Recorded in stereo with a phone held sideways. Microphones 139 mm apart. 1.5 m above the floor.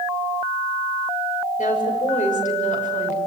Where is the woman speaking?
70° left (ahead or behind), 6.5 m.